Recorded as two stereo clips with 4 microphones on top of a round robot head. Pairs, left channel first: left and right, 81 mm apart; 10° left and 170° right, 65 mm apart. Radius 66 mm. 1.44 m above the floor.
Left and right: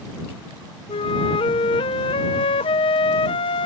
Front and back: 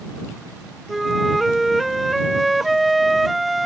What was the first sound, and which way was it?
A flute, 100° left.